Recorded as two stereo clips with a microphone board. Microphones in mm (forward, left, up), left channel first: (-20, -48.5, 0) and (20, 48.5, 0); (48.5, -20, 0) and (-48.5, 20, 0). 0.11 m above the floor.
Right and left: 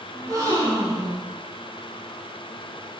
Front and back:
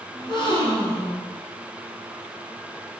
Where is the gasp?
15° left, 2.5 m.